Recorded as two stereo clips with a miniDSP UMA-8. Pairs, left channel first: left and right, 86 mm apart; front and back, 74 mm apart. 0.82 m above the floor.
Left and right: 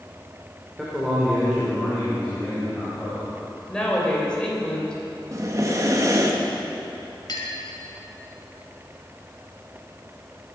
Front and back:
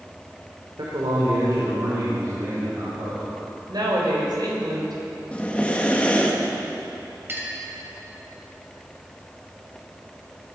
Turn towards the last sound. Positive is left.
turn(degrees=125)